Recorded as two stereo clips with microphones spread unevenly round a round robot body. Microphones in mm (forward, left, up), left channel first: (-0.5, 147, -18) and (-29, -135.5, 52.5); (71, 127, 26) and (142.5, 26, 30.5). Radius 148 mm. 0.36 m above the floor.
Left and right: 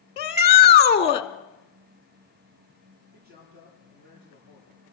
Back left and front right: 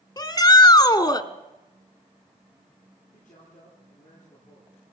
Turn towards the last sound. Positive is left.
turn(degrees=-155)